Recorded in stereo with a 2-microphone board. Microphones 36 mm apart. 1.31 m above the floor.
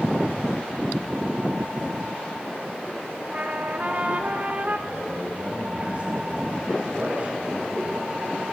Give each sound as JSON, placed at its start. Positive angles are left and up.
{"t": 3.3, "sound": "a trumpet", "side_deg": -40, "distance_m": 2.0}
{"t": 4.9, "sound": "a man speaking", "side_deg": -35, "distance_m": 9.0}